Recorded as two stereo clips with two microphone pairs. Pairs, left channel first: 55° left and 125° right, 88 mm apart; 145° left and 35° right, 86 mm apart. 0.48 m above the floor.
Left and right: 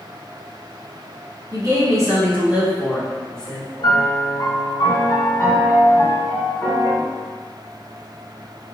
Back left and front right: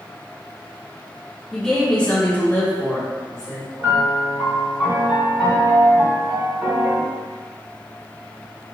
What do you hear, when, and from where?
1.5 s a woman speaking: 130° right, 1.1 m; by 3.7 s 120° left, 1.0 m
3.8 s a piano: 45° left, 1.9 m